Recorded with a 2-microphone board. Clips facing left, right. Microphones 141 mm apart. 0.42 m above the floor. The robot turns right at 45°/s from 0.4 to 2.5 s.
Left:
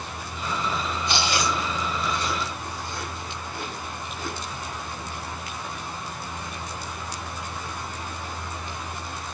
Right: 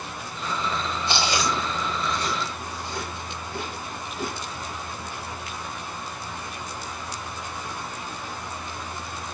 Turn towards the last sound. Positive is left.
turn(degrees=-90)